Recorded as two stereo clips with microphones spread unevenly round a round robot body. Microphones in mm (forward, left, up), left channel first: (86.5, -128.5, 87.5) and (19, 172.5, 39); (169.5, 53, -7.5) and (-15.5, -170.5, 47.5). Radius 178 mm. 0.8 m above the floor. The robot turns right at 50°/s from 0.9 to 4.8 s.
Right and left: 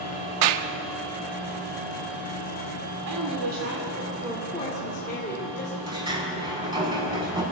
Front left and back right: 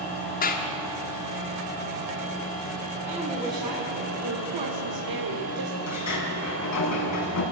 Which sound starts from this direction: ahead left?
A sliding door, at 5.9 s.